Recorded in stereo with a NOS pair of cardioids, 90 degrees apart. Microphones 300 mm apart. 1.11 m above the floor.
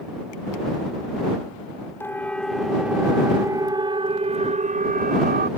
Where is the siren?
5° left; by 5.5 s 35° right.